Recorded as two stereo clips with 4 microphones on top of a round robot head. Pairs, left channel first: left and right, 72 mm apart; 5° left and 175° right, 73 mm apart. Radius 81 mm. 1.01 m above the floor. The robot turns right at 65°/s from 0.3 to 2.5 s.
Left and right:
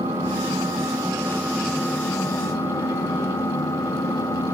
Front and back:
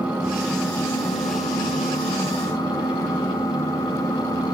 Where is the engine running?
90° right, 4 m; by 4.5 s 50° left, 4 m.